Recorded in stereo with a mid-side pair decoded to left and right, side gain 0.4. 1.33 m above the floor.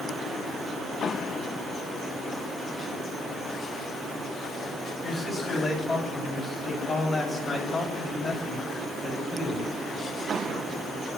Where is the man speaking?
40° left, 10 m; by 9.7 s 50° left, 7 m.